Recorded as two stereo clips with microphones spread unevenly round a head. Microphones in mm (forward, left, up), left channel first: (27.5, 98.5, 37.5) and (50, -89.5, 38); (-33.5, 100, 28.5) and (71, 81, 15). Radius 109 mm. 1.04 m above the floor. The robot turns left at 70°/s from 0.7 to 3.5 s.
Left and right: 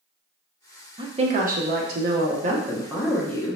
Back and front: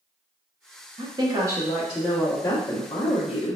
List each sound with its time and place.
1.0 s a woman speaking: 20° right, 1.0 m; by 3.6 s 165° left, 1.0 m